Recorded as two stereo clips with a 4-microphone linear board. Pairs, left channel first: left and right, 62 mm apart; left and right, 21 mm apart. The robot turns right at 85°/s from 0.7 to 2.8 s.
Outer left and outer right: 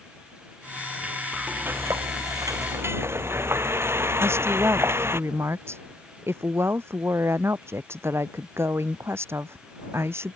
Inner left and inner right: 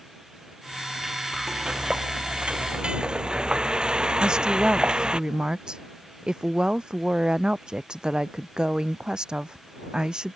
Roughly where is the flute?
I don't hear a flute.